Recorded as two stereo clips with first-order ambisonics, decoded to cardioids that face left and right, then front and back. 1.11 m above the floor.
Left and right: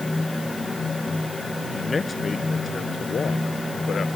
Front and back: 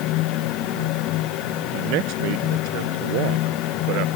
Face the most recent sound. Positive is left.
turn(degrees=155)